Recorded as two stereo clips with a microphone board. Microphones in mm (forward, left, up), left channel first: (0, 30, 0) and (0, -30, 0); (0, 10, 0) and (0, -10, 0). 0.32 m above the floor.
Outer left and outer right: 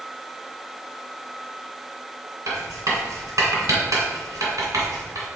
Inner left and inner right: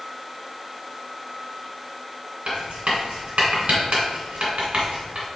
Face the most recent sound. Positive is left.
turn(degrees=-70)  # may be behind; listen again after turning